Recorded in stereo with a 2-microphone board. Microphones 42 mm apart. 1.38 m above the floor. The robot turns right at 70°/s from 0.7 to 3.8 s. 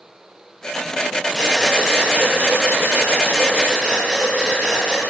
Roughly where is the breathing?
Behind.